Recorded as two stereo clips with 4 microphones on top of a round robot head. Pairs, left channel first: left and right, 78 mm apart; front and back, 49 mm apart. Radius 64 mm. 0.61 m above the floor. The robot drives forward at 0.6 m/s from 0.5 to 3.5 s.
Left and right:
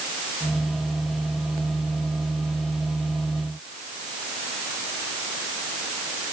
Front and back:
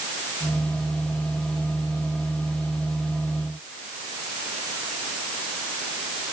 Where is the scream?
I don't hear a scream.